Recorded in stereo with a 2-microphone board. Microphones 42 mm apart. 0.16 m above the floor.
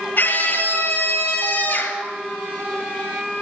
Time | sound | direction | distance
0.2 | a scream | 45° left (ahead or behind) | 3 m